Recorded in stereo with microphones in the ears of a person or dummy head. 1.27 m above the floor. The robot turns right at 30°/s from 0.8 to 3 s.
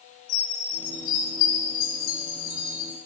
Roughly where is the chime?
Left.